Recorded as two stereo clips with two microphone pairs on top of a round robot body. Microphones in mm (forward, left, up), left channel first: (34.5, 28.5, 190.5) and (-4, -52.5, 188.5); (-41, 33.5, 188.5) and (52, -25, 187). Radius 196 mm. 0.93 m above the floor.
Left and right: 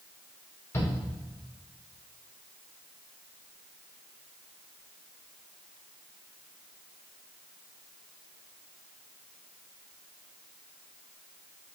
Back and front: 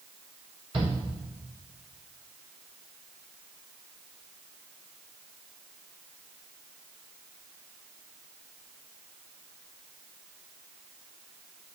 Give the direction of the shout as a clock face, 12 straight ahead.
12 o'clock.